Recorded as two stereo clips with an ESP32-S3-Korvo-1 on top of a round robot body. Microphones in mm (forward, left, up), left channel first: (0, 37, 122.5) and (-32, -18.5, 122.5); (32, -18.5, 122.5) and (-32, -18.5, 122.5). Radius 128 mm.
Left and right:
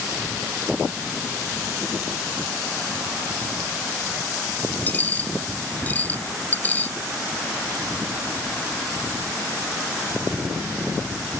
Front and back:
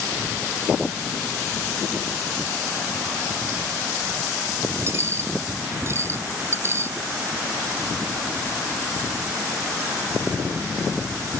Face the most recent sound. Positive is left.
turn(degrees=125)